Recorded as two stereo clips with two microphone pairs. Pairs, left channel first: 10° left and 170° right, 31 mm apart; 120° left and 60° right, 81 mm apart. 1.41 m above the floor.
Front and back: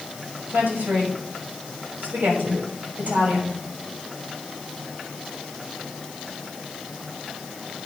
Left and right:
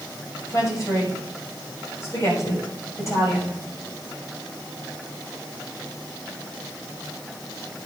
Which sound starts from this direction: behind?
A woman speaking, at 0.5 s.